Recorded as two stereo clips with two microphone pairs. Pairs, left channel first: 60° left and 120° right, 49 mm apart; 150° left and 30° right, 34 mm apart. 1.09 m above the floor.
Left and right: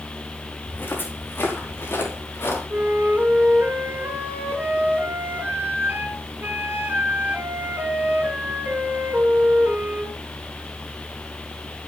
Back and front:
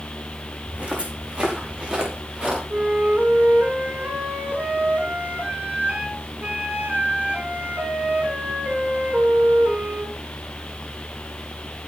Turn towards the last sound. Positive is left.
turn(degrees=-70)